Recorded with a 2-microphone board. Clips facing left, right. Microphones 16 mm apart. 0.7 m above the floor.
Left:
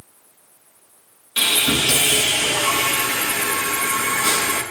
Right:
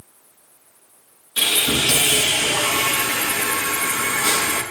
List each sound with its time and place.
1.4 s sawing: 60° left (ahead or behind), 4.5 m